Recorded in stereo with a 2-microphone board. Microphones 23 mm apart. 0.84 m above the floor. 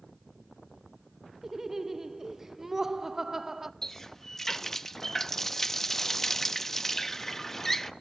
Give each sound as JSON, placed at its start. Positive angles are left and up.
{"t": 1.4, "sound": "laughter", "side_deg": -20, "distance_m": 0.6}
{"t": 3.8, "sound": "a running tap", "side_deg": 20, "distance_m": 0.6}